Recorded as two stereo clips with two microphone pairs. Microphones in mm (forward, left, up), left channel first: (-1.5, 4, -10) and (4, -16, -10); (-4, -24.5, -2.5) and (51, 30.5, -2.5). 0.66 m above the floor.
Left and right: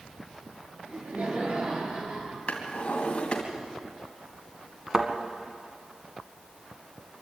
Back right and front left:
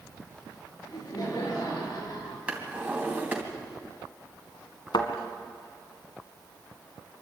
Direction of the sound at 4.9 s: 145° right.